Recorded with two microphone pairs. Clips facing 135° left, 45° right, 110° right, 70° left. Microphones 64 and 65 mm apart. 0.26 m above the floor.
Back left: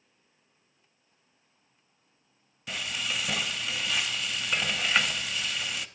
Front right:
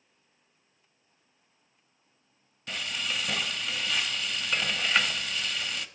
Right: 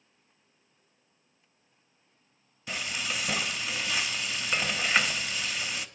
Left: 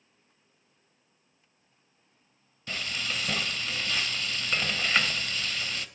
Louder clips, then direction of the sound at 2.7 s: Even, even; 150° right.